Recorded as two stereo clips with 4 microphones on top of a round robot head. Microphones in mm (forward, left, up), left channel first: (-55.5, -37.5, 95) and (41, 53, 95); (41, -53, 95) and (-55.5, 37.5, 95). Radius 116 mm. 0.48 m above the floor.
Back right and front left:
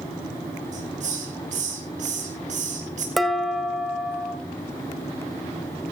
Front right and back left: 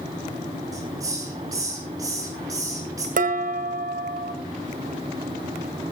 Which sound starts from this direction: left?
A hiss, at 0.7 s.